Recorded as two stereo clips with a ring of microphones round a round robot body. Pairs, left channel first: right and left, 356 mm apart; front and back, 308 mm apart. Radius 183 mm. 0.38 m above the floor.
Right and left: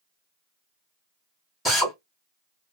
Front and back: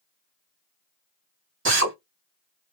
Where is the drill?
Straight behind, 1.3 m.